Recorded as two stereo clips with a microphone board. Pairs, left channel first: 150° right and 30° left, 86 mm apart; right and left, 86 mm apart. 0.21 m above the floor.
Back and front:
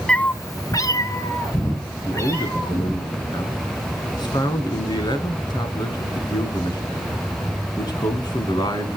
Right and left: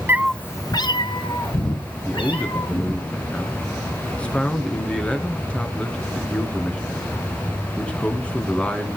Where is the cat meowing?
135° left, 0.6 m; by 3.0 s 95° right, 4 m.